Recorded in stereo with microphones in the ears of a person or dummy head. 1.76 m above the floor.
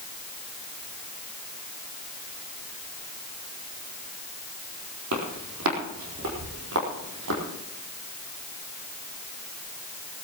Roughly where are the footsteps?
Right.